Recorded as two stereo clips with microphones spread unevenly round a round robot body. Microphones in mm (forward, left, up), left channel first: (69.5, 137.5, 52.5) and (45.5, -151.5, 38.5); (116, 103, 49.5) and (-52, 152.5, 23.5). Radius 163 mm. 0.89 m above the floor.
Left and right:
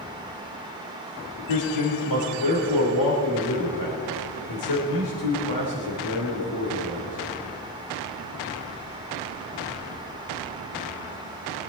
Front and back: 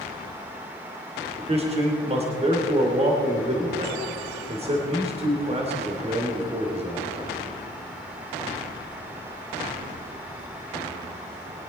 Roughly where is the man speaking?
Left.